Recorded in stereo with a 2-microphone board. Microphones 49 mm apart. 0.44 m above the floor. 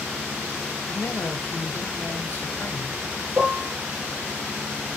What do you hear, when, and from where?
0.9 s a man speaking: 45° left (ahead or behind), 1.2 m
3.4 s dishes clattering: 65° right (ahead or behind), 4.5 m